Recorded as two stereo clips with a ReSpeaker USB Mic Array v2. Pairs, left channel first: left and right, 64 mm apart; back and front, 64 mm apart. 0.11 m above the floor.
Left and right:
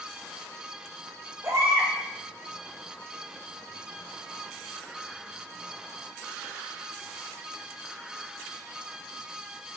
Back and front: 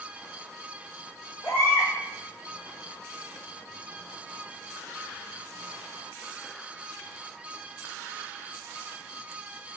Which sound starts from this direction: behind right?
A baby crying, at 1.4 s.